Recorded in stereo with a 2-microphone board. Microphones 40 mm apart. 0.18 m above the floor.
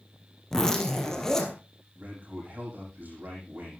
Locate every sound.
0.5 s a zipper: 15° left (ahead or behind), 3 m
1.9 s a man speaking: 40° right (ahead or behind), 7 m